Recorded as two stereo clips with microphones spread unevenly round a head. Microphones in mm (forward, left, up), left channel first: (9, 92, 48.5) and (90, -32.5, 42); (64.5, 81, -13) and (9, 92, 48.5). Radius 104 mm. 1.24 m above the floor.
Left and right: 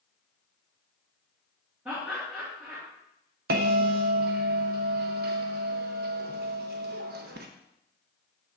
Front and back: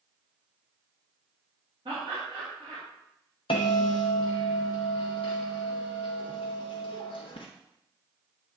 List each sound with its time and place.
1.9 s laughter: 140° right, 2.5 m
3.5 s a bell: 55° right, 0.7 m